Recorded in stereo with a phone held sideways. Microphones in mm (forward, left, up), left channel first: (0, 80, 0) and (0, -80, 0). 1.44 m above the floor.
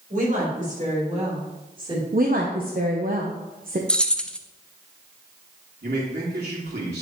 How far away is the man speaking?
About 3.5 m.